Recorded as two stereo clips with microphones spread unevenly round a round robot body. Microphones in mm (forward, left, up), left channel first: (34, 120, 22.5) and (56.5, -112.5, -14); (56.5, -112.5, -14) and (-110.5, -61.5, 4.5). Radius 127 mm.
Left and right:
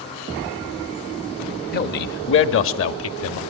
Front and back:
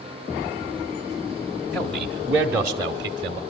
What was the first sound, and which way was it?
A man speaking, 60° left.